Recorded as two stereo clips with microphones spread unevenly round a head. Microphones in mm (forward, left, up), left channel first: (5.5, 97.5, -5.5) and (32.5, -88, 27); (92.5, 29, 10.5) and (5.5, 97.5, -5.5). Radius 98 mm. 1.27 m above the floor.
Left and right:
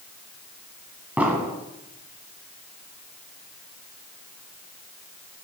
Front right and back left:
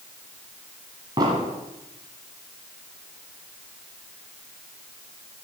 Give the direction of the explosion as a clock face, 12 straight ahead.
5 o'clock.